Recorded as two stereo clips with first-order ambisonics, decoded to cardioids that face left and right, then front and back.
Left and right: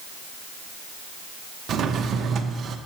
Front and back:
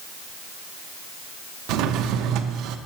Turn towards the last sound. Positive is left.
turn(degrees=-145)